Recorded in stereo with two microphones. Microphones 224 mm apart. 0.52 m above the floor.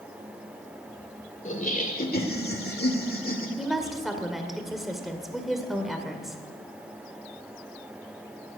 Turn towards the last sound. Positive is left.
turn(degrees=0)  # may be behind; listen again after turning